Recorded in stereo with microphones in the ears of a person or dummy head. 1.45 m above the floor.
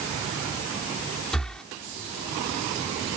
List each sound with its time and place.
1.3 s breathing: 5° left (ahead or behind)